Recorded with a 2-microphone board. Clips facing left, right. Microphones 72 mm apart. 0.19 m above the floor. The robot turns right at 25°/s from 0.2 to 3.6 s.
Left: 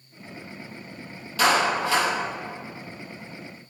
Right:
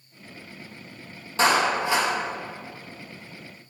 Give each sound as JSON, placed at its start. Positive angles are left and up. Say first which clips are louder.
{"t": 1.4, "sound": "a clap", "louder": "even", "side_deg": -30, "distance_m": 4.0}